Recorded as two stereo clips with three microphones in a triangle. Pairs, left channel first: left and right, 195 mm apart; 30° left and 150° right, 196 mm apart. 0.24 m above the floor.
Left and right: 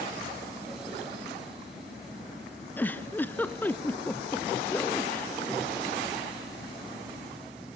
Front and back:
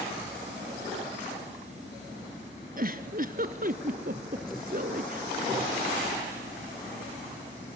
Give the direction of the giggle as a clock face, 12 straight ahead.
6 o'clock.